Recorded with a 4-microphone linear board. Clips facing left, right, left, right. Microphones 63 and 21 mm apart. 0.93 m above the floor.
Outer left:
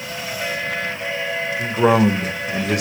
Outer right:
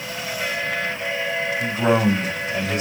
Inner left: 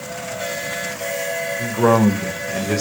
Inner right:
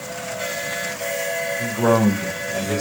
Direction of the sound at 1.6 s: 70° left (ahead or behind).